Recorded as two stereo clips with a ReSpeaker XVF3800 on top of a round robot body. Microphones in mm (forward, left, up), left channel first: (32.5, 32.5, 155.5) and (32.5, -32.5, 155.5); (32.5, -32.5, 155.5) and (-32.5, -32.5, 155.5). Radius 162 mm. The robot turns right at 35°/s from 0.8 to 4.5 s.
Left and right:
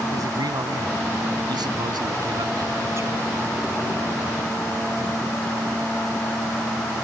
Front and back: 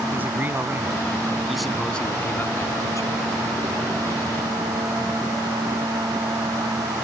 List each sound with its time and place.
0.1 s a man speaking: 120° right; by 3.2 s 35° right